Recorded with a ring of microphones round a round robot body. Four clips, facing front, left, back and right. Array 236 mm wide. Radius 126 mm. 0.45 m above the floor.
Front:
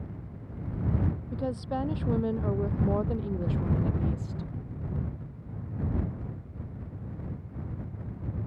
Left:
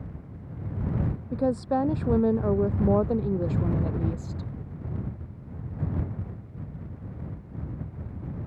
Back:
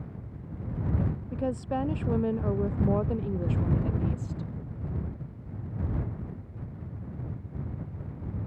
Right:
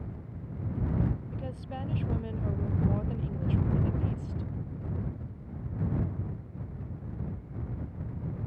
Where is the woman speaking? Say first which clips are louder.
Left 15 dB, back 4 dB; 95° left; by 4.5 s 90° left.